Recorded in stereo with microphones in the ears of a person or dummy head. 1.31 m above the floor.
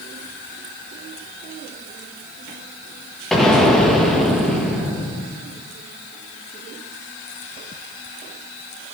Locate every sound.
3.3 s an explosion: centre (ahead or behind), 0.9 m